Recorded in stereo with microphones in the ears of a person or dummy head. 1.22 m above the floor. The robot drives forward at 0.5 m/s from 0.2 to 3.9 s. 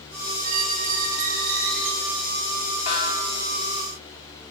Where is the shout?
No shout in this recording.